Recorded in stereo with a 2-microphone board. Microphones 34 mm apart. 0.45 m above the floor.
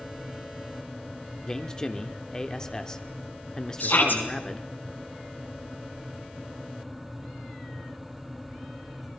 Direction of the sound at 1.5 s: 15° left (ahead or behind).